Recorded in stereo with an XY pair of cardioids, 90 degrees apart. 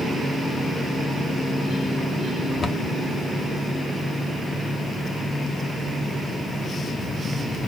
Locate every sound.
2.6 s a cupboard door: 40° left, 1.4 m